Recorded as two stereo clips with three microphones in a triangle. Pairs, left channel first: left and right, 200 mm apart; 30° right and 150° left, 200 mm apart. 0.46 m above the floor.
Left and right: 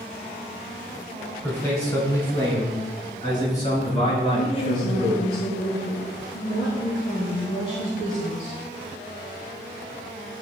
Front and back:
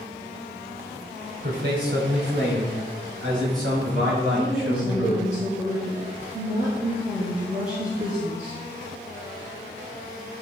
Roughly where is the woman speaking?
Left.